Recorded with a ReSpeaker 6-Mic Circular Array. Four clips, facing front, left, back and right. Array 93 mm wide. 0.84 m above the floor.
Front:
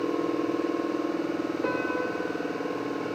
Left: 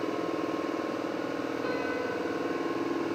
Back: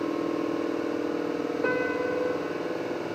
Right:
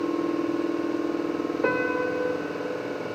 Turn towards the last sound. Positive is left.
turn(degrees=-100)